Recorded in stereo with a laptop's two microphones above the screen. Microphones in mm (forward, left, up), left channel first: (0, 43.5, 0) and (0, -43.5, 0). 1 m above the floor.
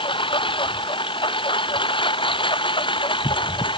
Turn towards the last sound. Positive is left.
turn(degrees=75)  # may be behind; listen again after turning